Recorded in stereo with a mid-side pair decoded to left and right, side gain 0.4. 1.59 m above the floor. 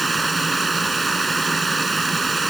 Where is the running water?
25° right.